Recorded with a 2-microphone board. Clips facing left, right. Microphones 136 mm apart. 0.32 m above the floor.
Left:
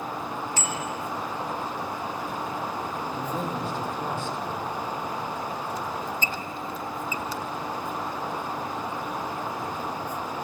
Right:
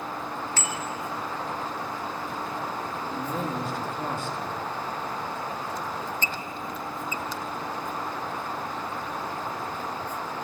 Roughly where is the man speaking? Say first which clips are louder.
Right 2 dB; centre.